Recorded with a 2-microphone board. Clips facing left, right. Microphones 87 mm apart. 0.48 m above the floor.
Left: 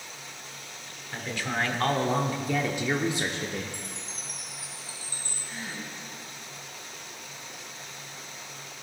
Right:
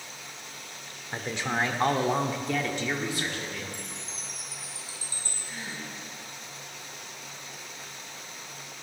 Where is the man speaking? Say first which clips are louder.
Right 1 dB; 30° right (ahead or behind), 1.4 m; by 3.6 s 35° left (ahead or behind), 1.1 m.